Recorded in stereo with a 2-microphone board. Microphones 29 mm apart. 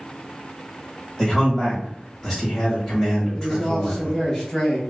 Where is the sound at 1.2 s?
20° left (ahead or behind), 1.6 m.